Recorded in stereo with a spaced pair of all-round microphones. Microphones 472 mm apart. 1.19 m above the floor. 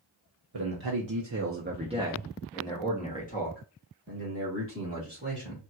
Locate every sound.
0.5 s a man speaking: 55° right (ahead or behind), 0.7 m; by 5.6 s 30° left (ahead or behind), 2.5 m